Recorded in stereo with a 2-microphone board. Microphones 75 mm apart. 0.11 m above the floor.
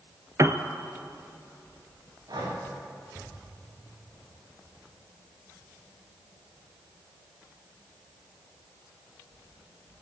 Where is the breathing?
60° right (ahead or behind), 6.5 m.